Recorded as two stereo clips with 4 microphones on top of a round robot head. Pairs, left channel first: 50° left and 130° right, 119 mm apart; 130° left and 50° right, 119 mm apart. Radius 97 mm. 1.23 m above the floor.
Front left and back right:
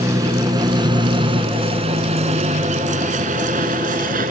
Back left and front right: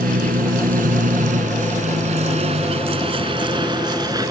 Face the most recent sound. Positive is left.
turn(degrees=-115)